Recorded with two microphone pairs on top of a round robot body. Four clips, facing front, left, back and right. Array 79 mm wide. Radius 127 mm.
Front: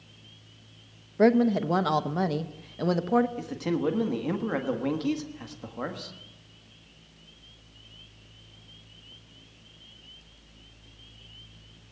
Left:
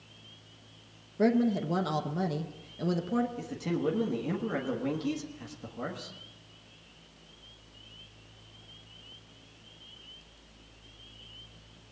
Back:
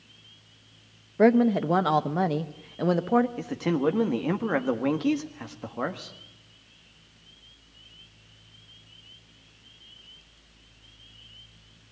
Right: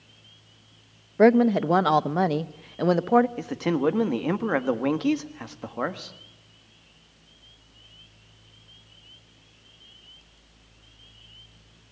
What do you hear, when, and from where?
1.2 s a woman speaking: 95° right, 0.9 m
3.4 s a man speaking: 105° right, 1.7 m